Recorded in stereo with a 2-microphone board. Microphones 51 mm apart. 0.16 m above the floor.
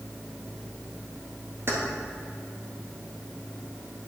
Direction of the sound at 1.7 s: 45° right (ahead or behind).